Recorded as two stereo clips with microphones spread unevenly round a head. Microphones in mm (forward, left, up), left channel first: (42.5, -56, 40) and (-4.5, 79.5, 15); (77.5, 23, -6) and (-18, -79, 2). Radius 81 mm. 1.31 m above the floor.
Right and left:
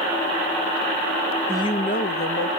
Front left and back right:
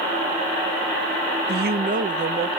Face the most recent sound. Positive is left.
turn(degrees=-90)